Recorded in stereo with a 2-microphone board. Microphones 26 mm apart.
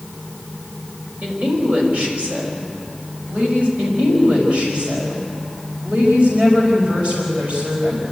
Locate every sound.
1.2 s a woman speaking: 60° right (ahead or behind), 5.5 m
3.8 s a woman speaking: 60° right (ahead or behind), 5 m